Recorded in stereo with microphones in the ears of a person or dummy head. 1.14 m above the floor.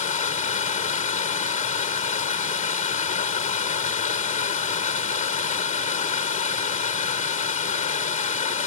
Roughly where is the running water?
Left.